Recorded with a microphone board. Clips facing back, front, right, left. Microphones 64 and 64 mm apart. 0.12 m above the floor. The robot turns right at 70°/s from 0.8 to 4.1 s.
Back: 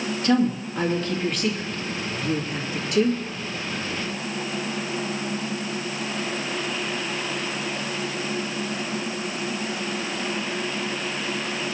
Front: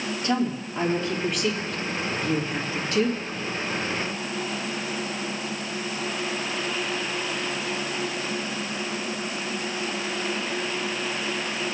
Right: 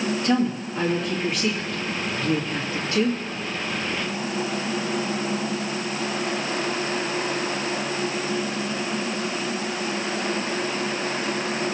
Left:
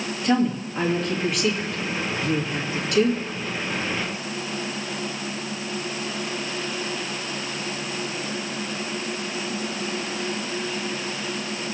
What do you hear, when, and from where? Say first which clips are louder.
0.2 s a woman speaking: back 5 dB, left 4 dB; 175° left, 2.5 m; by 3.2 s 20° right, 2.5 m